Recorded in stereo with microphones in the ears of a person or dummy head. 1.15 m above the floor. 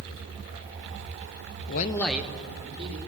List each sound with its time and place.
1.7 s a man speaking: 60° left (ahead or behind), 0.6 m; by 3.0 s 35° right (ahead or behind), 1.9 m